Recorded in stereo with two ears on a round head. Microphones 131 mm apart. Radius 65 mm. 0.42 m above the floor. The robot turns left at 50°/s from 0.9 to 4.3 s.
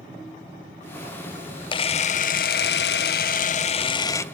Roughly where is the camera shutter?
Behind left.